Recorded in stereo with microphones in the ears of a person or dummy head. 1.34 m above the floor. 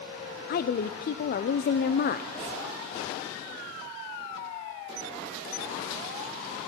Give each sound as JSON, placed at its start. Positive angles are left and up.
{"t": 0.5, "sound": "a woman speaking", "side_deg": 50, "distance_m": 0.6}